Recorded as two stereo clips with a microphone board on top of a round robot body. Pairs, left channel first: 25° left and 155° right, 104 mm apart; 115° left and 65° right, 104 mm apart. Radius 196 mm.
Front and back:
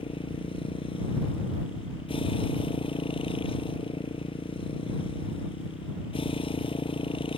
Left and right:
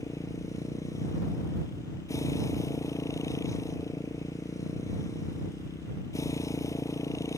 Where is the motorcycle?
55° left.